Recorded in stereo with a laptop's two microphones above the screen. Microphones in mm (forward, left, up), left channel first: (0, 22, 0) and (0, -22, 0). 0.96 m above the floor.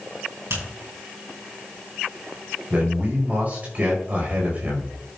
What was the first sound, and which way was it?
A finger snap, 70° right (ahead or behind).